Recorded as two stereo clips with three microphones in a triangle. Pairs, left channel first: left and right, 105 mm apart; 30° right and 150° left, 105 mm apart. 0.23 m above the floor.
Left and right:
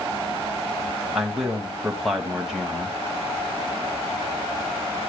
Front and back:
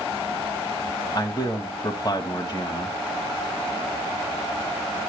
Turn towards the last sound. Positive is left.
turn(degrees=-5)